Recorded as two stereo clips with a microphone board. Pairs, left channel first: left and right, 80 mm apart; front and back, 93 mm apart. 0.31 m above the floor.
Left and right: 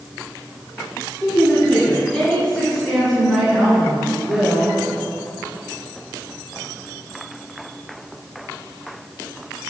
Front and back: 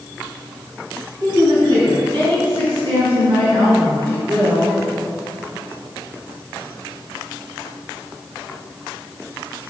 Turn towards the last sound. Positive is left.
turn(degrees=-155)